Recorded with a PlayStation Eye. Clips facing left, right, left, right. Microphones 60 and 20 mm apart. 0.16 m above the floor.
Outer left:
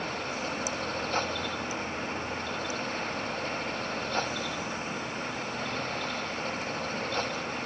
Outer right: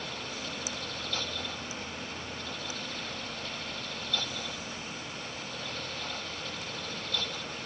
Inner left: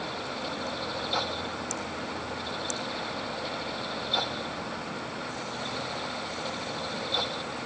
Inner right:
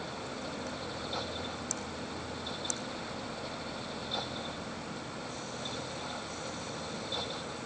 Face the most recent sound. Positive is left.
No sound to turn to.